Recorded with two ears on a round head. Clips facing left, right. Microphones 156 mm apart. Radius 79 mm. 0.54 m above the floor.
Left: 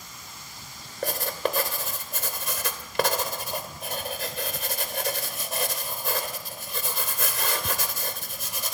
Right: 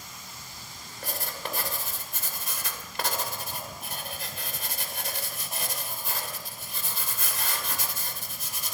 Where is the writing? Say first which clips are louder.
Left 9 dB; 55° left (ahead or behind), 2.5 m.